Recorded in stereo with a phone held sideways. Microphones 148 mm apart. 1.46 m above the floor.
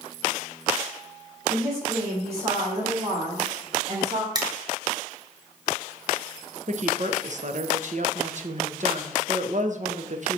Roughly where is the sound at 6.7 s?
Right.